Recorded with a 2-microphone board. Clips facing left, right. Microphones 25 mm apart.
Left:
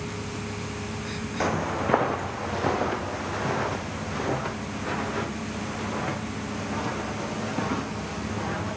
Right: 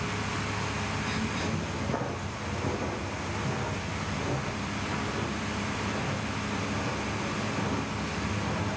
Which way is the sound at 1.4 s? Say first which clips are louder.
Left 6 dB; 65° left (ahead or behind).